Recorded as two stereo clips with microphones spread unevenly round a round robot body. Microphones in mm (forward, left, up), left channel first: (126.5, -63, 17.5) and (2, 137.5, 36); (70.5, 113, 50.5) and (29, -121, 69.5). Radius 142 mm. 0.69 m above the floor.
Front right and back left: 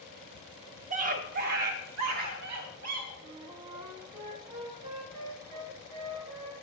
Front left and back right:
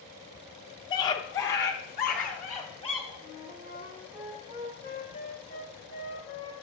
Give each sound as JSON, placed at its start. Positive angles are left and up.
{"t": 0.9, "sound": "a scream", "azimuth_deg": 110, "distance_m": 0.8}
{"t": 3.2, "sound": "a flute", "azimuth_deg": -170, "distance_m": 1.7}